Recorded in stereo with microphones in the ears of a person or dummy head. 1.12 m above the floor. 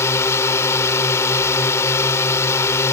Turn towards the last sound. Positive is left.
turn(degrees=15)  # may be behind; listen again after turning